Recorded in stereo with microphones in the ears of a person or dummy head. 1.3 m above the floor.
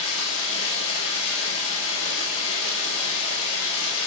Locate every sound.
0.0 s running water: 85° left, 5.5 m